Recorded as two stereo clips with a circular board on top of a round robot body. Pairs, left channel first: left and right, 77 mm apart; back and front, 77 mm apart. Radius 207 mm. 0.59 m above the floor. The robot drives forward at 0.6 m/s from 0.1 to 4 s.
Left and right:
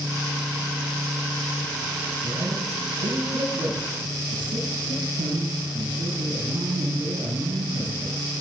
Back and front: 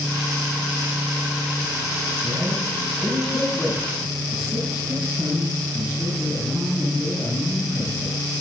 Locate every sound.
2.2 s a man speaking: 80° right, 6.5 m; by 8.2 s 90° right, 6.5 m